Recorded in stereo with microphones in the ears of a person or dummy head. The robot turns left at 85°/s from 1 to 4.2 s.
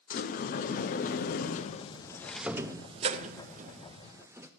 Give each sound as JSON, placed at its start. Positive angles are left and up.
{"t": 0.1, "sound": "a sliding door", "azimuth_deg": 110, "distance_m": 0.5}